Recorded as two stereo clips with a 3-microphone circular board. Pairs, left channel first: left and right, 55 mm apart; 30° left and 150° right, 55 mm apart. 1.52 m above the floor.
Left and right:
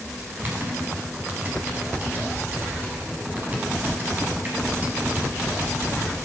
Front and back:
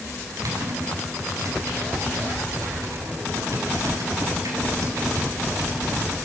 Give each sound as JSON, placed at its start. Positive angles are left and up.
{"t": 0.3, "sound": "typing on a keyboard", "azimuth_deg": -150, "distance_m": 8.5}